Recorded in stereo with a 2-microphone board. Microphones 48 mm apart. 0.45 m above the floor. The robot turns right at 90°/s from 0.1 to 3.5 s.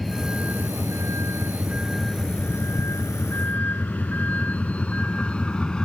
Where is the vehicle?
Centre (ahead or behind); by 5.8 s 20° left (ahead or behind).